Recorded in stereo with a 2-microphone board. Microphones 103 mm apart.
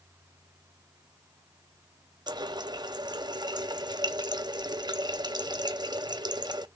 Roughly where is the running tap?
Right.